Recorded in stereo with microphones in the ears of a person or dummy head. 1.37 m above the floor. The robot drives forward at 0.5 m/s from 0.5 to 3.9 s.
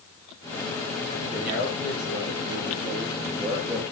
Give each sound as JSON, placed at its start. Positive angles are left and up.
{"t": 1.3, "sound": "a man speaking", "side_deg": -10, "distance_m": 9.5}